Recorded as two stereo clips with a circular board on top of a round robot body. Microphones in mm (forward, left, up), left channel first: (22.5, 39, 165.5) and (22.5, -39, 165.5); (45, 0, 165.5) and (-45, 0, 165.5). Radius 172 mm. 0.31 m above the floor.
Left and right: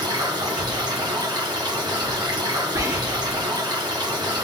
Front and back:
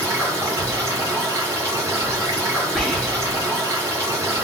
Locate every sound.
0.0 s running water: 120° right, 1.6 m
2.8 s whispering: 85° right, 1.6 m